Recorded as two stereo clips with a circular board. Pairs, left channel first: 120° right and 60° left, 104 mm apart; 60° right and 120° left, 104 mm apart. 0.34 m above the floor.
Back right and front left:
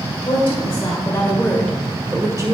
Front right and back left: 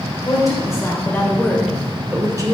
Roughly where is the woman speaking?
Right.